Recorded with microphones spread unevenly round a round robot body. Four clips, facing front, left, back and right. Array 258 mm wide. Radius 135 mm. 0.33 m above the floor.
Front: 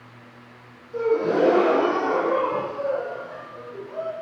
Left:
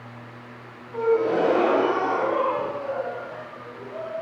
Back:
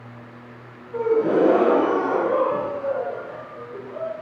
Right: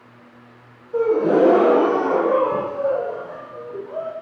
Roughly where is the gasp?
Right.